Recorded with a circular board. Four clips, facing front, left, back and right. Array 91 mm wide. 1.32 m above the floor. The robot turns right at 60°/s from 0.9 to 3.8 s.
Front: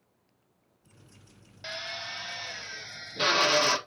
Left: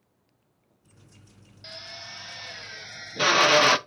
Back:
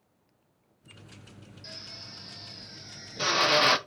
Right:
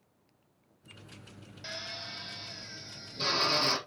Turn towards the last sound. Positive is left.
turn(degrees=115)